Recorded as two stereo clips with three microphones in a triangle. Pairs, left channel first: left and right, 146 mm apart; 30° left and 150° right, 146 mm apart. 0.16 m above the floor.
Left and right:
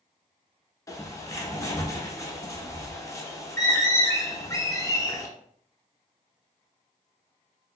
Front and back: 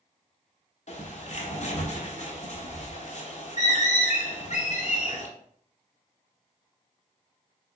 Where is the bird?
30° left, 0.6 m.